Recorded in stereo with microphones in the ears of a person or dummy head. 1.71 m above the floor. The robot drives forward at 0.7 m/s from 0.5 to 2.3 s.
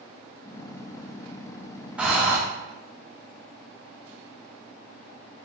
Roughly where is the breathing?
Centre.